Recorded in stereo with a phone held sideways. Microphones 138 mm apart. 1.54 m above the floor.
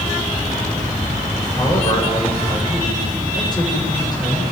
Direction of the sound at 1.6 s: 30° left (ahead or behind).